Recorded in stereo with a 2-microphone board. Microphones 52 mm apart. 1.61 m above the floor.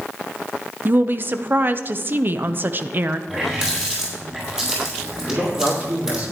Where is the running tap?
15° right (ahead or behind), 6 m.